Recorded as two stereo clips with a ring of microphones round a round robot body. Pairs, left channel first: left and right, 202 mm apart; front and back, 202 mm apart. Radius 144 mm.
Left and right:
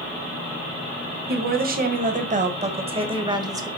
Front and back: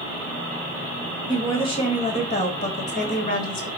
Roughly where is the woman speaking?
Ahead right.